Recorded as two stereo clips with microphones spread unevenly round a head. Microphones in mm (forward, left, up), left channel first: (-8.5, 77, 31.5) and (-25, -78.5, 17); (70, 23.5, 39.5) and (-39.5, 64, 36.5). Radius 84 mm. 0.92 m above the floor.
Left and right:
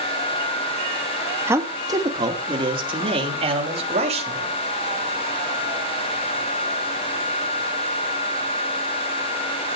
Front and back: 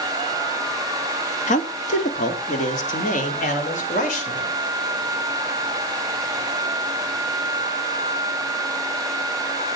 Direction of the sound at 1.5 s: 25° right.